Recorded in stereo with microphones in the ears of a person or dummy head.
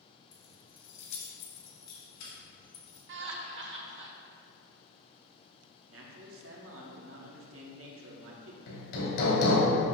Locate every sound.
0.3 s keys jangling: 20° left (ahead or behind), 0.7 m; by 3.0 s 80° left, 3 m
3.1 s laughter: 60° right (ahead or behind), 0.9 m
5.9 s a man speaking: 55° right (ahead or behind), 0.9 m
8.7 s hammering: 70° left (ahead or behind), 2 m